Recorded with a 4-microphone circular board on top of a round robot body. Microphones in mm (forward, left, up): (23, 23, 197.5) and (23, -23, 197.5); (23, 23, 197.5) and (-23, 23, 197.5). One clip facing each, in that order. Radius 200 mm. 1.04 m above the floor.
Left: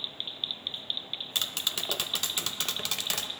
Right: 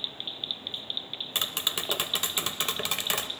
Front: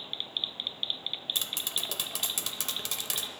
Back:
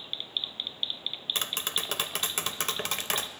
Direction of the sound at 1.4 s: 155° right.